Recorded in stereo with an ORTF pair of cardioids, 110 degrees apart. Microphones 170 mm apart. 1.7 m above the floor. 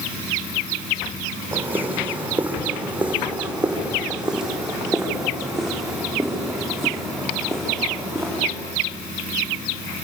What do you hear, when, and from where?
1.5 s footsteps: 10° right, 5.5 m; by 8.5 s 5° left, 9.5 m